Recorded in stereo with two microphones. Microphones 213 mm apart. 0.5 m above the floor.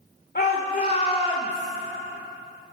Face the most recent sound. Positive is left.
turn(degrees=15)  # may be behind; listen again after turning